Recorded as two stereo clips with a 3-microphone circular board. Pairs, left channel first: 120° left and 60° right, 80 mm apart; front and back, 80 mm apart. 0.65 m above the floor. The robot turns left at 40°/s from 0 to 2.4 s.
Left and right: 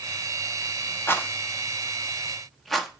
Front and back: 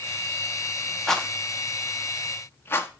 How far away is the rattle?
About 0.6 m.